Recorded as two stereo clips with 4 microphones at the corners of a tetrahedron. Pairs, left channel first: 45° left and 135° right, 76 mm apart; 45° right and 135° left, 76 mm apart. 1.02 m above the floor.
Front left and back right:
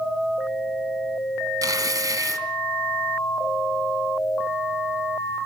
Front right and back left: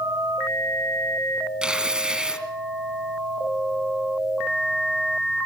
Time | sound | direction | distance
1.6 | tearing paper | 150° right | 1.4 m